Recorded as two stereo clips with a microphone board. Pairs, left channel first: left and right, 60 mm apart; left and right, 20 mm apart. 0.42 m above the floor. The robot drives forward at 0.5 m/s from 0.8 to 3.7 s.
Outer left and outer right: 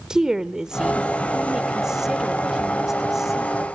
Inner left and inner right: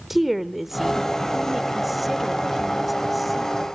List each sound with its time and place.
0.1 s a woman speaking: 10° right (ahead or behind), 1.1 m; by 3.6 s 5° right (ahead or behind), 2 m